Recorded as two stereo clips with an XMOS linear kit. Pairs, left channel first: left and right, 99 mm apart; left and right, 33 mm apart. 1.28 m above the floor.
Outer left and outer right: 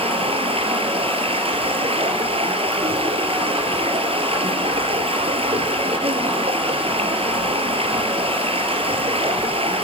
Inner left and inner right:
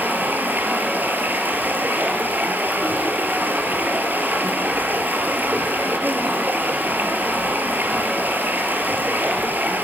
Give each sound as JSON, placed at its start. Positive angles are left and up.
{"t": 0.0, "sound": "running water", "side_deg": -75, "distance_m": 4.0}